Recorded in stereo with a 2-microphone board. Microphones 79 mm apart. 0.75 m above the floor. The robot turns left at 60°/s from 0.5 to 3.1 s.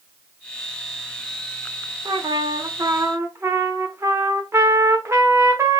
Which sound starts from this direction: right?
A trumpet, at 2.0 s.